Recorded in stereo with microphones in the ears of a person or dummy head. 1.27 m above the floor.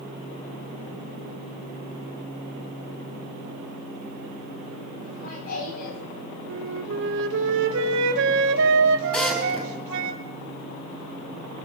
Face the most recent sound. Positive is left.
turn(degrees=0)  # may be behind; listen again after turning